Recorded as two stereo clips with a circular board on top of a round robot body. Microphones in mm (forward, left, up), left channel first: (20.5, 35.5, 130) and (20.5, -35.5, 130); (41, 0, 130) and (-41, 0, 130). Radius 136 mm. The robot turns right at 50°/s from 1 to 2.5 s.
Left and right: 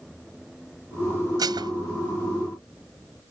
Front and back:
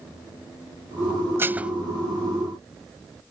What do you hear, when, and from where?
1.4 s dishes clattering: 120° right; by 1.7 s 100° right